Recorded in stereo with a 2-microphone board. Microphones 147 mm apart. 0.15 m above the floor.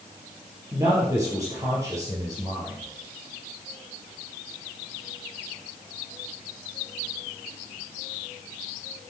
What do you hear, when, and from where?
0.7 s a man speaking: 20° right (ahead or behind), 4 m